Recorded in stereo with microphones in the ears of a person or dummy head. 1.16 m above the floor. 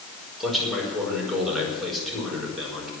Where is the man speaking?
Centre (ahead or behind), 5 m.